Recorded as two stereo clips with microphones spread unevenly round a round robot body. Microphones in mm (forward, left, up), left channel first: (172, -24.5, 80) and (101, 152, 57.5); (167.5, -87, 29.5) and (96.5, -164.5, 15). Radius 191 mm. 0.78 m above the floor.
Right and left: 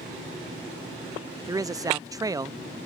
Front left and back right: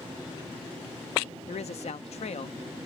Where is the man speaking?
40° left.